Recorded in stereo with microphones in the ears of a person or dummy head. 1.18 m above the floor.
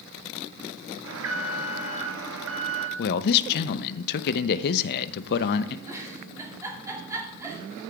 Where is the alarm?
65° right (ahead or behind), 1.1 m.